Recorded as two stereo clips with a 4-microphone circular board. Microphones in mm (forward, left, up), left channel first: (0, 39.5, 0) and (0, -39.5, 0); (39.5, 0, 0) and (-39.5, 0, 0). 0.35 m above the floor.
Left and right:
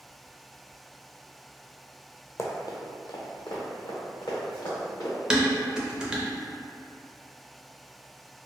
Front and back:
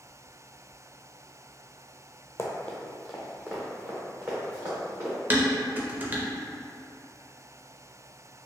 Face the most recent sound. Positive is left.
turn(degrees=-155)